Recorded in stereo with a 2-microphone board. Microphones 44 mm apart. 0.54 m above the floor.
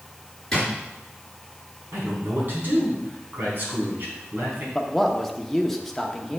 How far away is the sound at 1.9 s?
About 4.5 m.